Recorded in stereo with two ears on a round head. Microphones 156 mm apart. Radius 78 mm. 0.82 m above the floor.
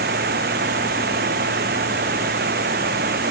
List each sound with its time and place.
0.0 s running water: 60° right (ahead or behind)